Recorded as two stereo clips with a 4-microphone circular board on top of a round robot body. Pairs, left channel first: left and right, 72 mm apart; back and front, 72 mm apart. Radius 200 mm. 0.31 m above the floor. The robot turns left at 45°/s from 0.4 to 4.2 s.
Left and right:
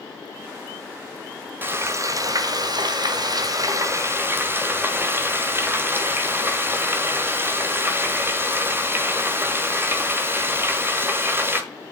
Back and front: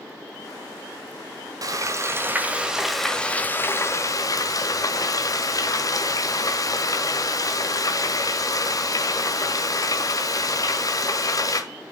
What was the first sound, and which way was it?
Frying, 30° right.